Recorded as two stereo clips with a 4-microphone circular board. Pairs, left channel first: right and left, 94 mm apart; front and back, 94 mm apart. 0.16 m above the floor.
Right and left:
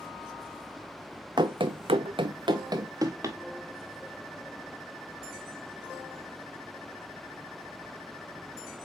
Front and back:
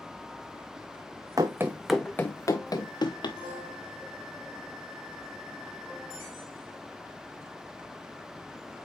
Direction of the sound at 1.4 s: 130° left.